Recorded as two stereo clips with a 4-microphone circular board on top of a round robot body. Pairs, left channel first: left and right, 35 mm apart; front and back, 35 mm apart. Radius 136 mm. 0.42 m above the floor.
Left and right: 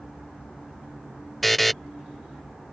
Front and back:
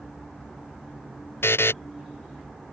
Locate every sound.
1.4 s a buzzer: straight ahead